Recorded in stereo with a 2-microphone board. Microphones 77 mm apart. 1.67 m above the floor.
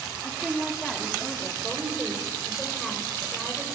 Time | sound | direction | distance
0.2 | a woman speaking | centre (ahead or behind) | 4.5 m
1.6 | a woman speaking | 5° right (ahead or behind) | 6.5 m